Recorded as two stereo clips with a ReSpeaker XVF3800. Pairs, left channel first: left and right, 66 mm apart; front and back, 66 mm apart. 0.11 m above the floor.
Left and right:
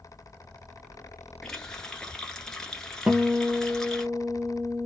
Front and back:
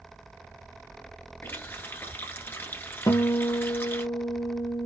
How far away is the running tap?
About 1.0 m.